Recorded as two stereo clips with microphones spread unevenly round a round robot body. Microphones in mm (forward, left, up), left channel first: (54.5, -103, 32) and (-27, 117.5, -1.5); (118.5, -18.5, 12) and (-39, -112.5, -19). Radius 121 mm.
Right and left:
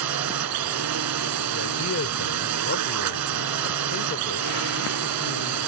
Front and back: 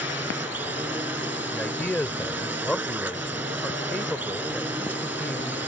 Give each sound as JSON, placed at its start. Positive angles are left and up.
{"t": 0.0, "sound": "a drone", "azimuth_deg": 125}
{"t": 1.5, "sound": "a man speaking", "azimuth_deg": -55}